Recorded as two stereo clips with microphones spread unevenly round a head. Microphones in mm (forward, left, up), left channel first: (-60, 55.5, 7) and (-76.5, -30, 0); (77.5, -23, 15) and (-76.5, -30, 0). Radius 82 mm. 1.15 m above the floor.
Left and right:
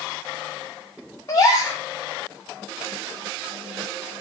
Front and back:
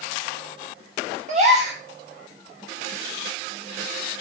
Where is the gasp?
130° left, 6.5 m.